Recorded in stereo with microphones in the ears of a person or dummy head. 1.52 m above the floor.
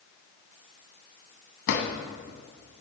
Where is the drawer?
60° left (ahead or behind), 1.3 m.